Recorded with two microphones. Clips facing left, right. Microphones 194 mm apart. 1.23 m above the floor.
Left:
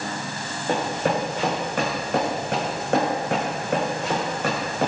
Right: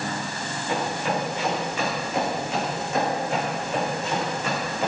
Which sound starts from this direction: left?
Running footsteps, at 0.7 s.